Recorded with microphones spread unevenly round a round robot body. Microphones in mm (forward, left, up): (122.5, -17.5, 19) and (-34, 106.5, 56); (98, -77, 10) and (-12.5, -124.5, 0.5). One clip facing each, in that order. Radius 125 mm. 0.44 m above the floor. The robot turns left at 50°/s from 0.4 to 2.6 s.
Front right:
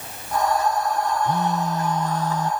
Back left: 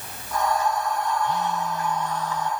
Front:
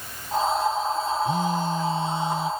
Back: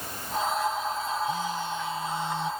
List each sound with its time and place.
1.2 s a phone buzzing: straight ahead; by 2.5 s 65° right